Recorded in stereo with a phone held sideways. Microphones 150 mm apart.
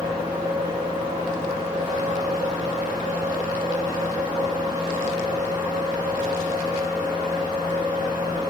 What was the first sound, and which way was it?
A fan, 50° right (ahead or behind).